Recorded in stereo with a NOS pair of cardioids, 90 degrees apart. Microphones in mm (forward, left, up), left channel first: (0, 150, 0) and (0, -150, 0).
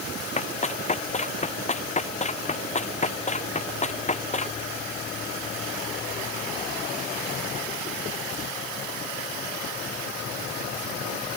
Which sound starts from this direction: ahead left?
Running footsteps, at 0.4 s.